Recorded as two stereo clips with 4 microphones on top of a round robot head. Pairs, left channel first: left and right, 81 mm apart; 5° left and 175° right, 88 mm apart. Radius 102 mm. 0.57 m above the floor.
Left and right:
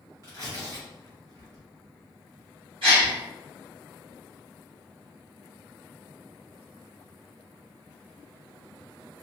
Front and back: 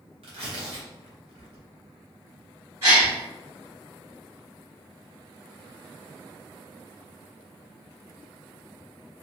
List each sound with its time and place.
0.2 s tearing paper: 150° right, 0.8 m
2.8 s a gasp: 115° right, 2.0 m